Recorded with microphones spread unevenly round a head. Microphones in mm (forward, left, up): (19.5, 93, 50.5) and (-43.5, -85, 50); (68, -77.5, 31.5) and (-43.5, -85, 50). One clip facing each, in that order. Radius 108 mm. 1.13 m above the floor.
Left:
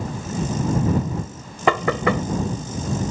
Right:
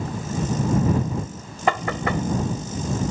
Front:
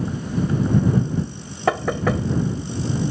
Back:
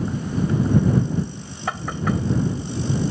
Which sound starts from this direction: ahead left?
Knocking, at 1.7 s.